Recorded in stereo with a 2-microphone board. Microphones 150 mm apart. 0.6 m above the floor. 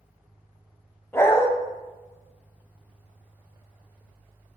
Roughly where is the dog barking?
Centre.